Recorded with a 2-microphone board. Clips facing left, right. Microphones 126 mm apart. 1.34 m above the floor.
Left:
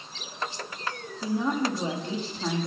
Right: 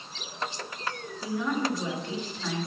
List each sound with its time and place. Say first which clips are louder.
1.2 s a woman speaking: left 2 dB; 35° left (ahead or behind), 2.5 m